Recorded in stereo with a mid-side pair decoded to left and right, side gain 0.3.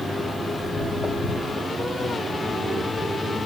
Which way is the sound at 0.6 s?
30° left.